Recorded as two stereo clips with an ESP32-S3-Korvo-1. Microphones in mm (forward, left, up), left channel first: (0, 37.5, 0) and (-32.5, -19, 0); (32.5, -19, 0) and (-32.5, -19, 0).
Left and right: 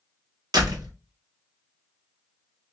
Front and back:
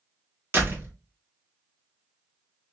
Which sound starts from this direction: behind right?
A door slam, at 0.5 s.